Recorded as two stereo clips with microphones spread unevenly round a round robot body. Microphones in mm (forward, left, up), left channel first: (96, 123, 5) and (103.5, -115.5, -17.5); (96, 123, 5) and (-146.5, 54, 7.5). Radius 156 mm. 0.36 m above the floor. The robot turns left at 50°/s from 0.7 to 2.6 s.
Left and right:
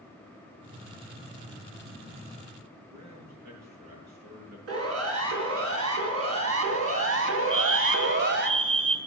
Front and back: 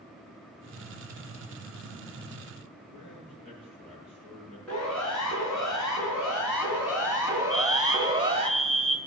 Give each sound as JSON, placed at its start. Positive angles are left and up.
{"t": 2.9, "sound": "a man speaking", "azimuth_deg": -90, "distance_m": 6.5}
{"t": 4.7, "sound": "a siren", "azimuth_deg": -70, "distance_m": 4.5}
{"t": 7.5, "sound": "a fire alarm", "azimuth_deg": -65, "distance_m": 2.0}